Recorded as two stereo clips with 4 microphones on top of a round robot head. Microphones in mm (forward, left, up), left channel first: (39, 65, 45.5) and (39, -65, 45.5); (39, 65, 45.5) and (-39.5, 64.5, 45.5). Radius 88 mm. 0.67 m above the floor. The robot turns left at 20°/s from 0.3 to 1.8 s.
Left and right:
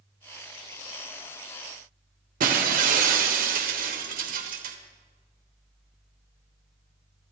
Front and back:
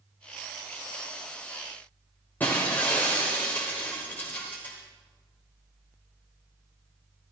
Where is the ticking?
I don't hear ticking.